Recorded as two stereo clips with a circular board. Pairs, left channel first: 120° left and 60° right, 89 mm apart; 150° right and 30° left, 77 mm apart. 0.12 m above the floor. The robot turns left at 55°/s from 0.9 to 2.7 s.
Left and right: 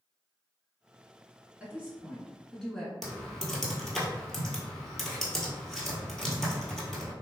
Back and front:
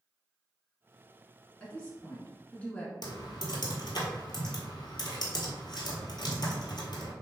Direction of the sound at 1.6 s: 105° right.